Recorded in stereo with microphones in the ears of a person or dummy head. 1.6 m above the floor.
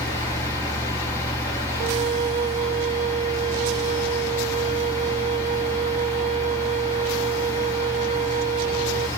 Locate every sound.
0.0 s a fan: 20° left (ahead or behind), 2.5 m
1.8 s a flute: 35° right (ahead or behind), 0.7 m